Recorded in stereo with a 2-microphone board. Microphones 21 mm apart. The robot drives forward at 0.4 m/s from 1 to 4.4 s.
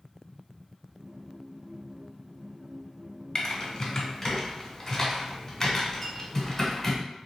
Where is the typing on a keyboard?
25° left (ahead or behind), 0.8 m; by 7.0 s 20° left (ahead or behind), 1.2 m.